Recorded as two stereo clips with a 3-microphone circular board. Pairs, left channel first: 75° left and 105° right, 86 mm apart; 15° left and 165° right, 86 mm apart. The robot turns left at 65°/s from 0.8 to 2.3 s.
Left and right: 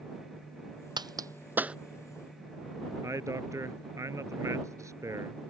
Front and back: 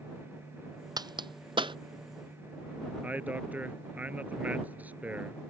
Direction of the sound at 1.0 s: 130° right.